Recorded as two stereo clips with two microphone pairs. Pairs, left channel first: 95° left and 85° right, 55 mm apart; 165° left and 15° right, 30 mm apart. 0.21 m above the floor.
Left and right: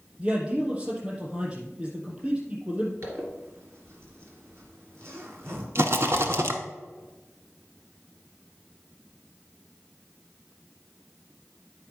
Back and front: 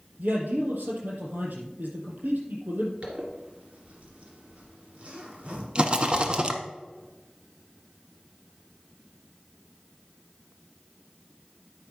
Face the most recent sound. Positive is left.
turn(degrees=-65)